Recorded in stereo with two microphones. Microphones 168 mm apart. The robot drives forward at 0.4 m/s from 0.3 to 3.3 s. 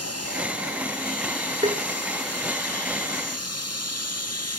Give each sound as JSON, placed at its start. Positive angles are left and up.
{"t": 1.6, "sound": "tapping", "side_deg": -40, "distance_m": 1.3}